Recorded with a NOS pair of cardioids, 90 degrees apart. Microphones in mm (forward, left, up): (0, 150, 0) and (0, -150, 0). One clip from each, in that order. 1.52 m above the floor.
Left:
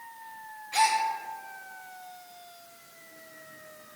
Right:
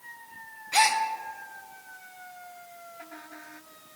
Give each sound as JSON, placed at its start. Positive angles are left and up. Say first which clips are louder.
{"t": 0.7, "sound": "a gasp", "louder": "right 2 dB", "azimuth_deg": -30, "distance_m": 1.0}